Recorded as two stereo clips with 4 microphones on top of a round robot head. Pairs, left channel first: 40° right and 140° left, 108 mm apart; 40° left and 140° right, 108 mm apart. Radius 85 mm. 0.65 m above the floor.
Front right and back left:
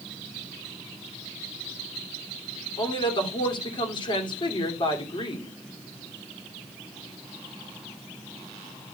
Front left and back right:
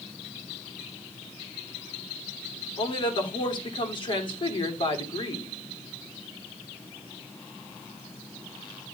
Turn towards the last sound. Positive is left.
turn(degrees=0)